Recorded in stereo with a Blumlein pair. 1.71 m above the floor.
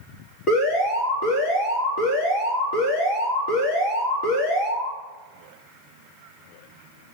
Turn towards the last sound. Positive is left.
turn(degrees=30)